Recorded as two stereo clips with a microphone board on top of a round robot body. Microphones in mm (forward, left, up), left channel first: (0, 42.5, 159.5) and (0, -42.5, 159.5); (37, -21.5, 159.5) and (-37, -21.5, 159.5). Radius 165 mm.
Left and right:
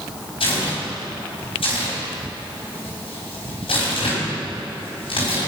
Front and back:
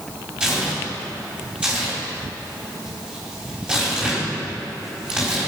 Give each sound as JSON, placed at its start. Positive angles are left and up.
{"t": 0.4, "sound": "tearing paper", "azimuth_deg": 105, "distance_m": 4.0}